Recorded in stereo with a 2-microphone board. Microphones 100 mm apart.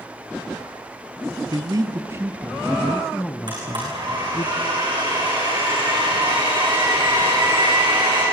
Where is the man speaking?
45° right (ahead or behind), 1.5 m; by 4.5 s 45° left (ahead or behind), 1.8 m.